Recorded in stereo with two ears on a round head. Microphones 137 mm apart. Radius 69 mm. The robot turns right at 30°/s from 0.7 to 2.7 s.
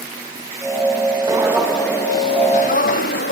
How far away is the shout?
No shout in this recording.